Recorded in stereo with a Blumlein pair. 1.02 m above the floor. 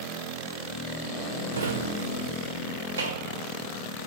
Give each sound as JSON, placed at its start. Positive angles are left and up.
{"t": 1.5, "sound": "a drawer", "azimuth_deg": -70, "distance_m": 1.6}